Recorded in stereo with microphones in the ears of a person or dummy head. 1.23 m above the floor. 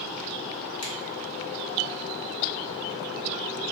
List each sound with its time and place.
0.8 s a finger snap: 75° left (ahead or behind), 1.4 m